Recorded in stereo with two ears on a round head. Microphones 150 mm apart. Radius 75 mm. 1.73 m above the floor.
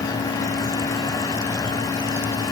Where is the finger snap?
I don't hear a finger snap.